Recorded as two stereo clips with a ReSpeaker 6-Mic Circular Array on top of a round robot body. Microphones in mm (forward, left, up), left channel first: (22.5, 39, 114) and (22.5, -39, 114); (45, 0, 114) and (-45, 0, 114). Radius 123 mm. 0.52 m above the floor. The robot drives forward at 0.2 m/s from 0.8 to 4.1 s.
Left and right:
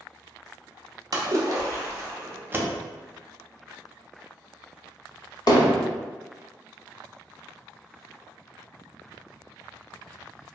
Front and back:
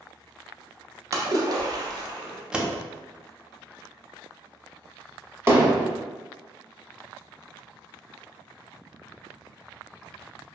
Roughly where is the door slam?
Right.